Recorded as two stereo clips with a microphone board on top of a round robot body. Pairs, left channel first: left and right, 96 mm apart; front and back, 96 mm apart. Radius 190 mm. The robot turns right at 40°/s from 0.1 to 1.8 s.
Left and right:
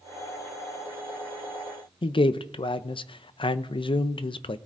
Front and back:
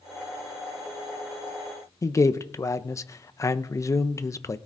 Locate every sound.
2.0 s a man speaking: 60° left, 0.6 m